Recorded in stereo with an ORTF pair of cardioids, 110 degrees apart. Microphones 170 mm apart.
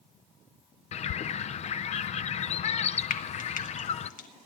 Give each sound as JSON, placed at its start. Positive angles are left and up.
{"t": 0.9, "sound": "a bird", "azimuth_deg": 45, "distance_m": 0.6}
{"t": 3.1, "sound": "frying", "azimuth_deg": 55, "distance_m": 1.7}